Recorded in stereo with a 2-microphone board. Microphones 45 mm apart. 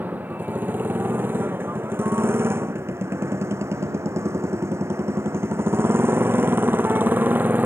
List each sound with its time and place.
0.0 s a motorcycle: 40° right (ahead or behind)